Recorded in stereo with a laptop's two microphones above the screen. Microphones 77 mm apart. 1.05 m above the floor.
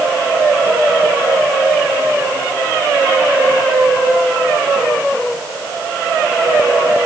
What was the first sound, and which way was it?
Only background noise.